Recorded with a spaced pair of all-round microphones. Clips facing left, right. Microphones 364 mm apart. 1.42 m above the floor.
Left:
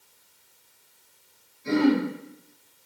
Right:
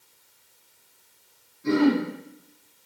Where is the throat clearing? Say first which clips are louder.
Right 1 dB; 85° right, 4.5 m.